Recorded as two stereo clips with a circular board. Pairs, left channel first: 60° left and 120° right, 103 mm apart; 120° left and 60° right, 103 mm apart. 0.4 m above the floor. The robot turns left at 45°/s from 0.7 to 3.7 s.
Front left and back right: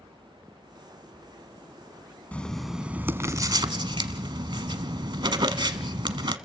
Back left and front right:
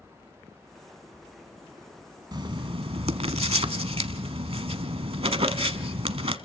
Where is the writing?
15° right, 0.9 m; by 6.4 s 80° right, 0.9 m.